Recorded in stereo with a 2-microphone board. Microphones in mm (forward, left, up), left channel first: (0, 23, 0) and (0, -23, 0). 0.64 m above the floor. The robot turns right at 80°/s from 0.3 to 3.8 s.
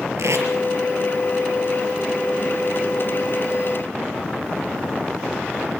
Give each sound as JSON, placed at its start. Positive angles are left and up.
{"t": 0.2, "sound": "tape being pulled", "side_deg": -85, "distance_m": 5.0}